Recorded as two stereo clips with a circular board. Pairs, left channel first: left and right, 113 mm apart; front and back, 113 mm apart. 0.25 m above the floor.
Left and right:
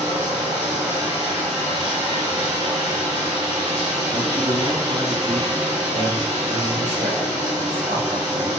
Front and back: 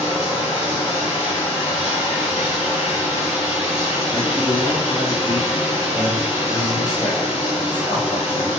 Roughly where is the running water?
Ahead right.